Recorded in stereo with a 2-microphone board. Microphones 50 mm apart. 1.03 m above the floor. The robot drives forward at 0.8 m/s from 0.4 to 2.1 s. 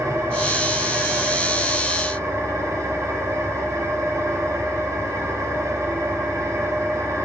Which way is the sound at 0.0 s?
85° right.